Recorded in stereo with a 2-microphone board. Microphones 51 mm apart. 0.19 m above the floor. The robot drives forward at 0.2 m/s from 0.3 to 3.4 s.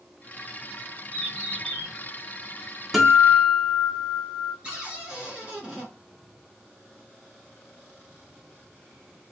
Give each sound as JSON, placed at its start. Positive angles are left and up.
{"t": 1.1, "sound": "a bird", "side_deg": 5, "distance_m": 2.0}
{"t": 2.9, "sound": "a guitar", "side_deg": -5, "distance_m": 0.9}
{"t": 4.6, "sound": "a cupboard door", "side_deg": -15, "distance_m": 1.2}